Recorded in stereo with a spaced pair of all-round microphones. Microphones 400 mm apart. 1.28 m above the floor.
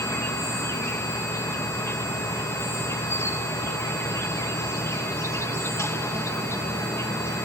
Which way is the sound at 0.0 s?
5° left (ahead or behind).